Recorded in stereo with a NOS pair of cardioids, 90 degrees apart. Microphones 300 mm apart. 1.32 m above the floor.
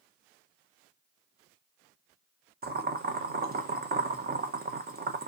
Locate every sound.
2.6 s boiling: 35° right, 0.8 m